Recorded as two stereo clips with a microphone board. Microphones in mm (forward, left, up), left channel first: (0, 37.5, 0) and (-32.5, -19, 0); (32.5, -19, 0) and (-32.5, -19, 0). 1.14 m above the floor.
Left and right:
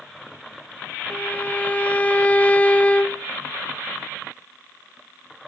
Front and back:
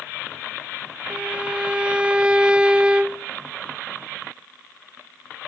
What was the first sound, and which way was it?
A violin, 115° left.